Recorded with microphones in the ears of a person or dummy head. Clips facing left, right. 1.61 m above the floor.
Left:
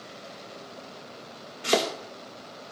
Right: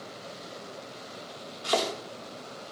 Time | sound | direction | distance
1.6 | chopping | 35° left (ahead or behind) | 3 m